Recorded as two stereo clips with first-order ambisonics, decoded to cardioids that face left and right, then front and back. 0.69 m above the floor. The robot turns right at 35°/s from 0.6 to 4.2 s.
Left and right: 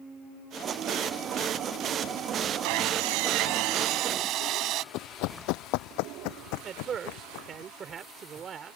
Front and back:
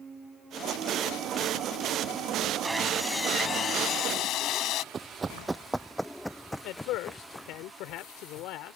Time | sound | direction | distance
2.6 | sawing | 100° right | ?
4.9 | running footsteps | 115° left | ?
6.6 | a man speaking | 30° right | ?